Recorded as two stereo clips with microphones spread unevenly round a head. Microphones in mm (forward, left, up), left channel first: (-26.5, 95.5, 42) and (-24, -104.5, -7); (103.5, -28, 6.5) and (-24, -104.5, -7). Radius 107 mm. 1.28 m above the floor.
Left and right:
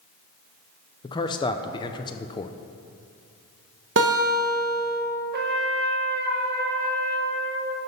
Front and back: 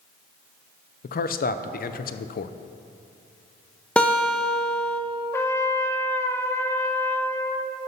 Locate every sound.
1.0 s a man speaking: 15° left, 0.5 m
4.0 s a guitar: 55° right, 1.1 m
5.3 s a trumpet: 45° right, 0.9 m